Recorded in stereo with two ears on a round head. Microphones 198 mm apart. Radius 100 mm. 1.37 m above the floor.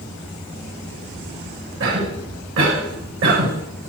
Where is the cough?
60° right (ahead or behind), 7.5 m.